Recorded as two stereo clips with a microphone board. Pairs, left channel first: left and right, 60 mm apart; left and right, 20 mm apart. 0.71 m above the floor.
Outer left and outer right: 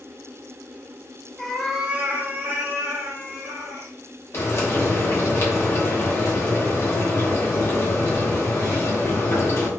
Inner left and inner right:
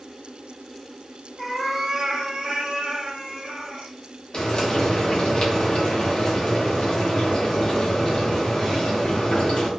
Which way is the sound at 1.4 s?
10° left (ahead or behind).